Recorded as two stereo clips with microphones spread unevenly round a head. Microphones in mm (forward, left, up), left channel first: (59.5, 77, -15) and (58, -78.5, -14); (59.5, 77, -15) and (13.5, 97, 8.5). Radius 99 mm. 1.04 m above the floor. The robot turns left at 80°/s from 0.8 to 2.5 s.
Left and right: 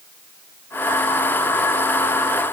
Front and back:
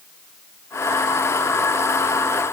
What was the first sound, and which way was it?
Only background noise.